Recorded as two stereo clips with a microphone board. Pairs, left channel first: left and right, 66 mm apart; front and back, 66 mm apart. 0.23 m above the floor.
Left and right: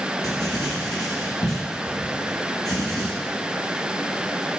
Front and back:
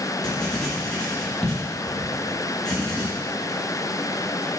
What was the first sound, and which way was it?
Writing, 80° left.